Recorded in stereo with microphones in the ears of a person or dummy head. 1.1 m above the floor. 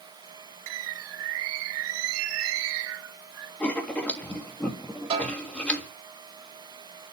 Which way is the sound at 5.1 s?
30° right (ahead or behind).